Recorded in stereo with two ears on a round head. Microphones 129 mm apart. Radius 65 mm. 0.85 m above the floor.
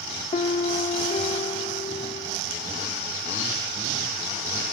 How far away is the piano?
About 0.6 m.